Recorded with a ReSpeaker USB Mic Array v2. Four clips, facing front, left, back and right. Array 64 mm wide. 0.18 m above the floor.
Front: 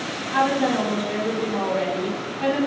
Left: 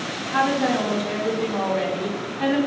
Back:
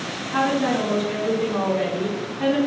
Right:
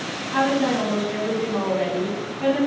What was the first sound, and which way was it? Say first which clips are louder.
A woman speaking: even, front 1 dB; 20° left.